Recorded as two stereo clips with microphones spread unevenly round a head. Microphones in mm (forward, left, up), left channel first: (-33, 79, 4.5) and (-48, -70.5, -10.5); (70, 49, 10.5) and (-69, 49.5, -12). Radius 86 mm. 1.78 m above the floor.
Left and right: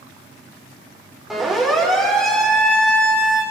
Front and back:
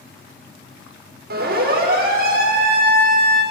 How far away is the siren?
About 8 m.